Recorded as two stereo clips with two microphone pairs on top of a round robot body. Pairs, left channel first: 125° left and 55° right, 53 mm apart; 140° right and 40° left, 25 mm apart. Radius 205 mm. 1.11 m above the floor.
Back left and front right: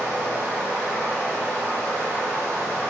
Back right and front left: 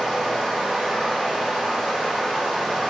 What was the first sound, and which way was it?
Running water, 50° left.